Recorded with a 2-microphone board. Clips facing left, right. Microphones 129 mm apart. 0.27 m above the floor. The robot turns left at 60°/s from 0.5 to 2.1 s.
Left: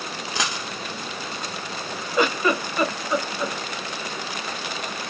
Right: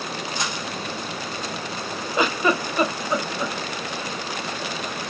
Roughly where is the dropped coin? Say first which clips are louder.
Even; left.